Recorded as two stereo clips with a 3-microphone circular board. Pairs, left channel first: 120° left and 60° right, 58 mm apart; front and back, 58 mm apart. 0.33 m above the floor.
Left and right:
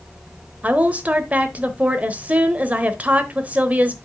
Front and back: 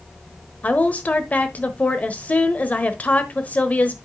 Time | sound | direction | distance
0.6 | a woman speaking | 30° right | 1.0 m